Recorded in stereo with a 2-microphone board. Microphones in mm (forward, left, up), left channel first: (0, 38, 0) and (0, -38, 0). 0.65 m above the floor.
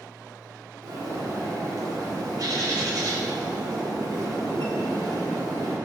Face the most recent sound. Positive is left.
turn(degrees=-55)  # may be behind; listen again after turning